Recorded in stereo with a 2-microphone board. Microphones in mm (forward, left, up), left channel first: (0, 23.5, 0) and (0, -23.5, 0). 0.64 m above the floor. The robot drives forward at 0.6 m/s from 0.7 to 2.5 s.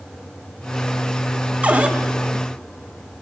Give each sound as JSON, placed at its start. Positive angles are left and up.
{"t": 1.6, "sound": "a cupboard door", "side_deg": -30, "distance_m": 0.7}